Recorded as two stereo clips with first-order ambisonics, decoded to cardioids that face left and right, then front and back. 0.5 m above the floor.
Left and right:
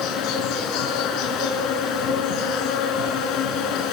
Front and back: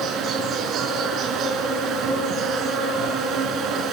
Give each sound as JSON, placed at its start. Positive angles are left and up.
{"t": 0.0, "sound": "an insect", "azimuth_deg": 125, "distance_m": 5.0}